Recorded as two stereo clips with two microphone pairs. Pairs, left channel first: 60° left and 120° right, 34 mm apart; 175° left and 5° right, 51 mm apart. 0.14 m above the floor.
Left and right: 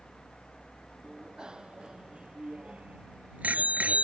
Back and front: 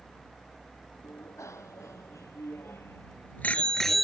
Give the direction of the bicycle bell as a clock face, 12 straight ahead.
6 o'clock.